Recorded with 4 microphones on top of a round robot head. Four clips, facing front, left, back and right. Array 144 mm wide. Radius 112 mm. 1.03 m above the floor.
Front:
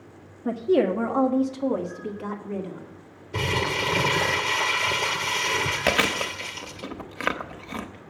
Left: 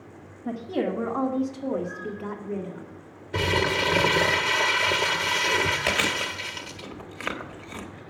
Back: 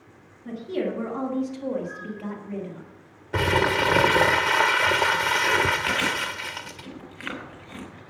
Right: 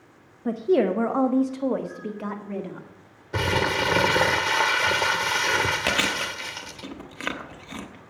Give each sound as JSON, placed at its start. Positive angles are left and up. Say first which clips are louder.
{"t": 0.5, "sound": "a woman speaking", "louder": "right 7 dB, front 7 dB", "azimuth_deg": -45, "distance_m": 0.8}
{"t": 3.3, "sound": "crumpling", "louder": "right 1 dB, back 5 dB", "azimuth_deg": -155, "distance_m": 0.5}
{"t": 5.9, "sound": "chewing", "louder": "right 1 dB, front 2 dB", "azimuth_deg": -15, "distance_m": 1.1}